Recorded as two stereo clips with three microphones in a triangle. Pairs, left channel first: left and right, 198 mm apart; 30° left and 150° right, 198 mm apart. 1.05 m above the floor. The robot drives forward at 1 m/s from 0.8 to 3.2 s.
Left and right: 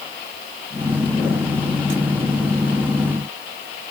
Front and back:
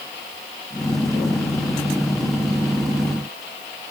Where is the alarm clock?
I don't hear an alarm clock.